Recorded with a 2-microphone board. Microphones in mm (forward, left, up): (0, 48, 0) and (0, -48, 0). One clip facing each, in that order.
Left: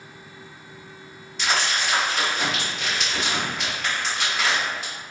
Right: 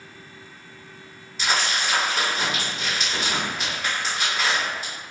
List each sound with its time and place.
1.4 s crumpling: 5° right (ahead or behind), 1.6 m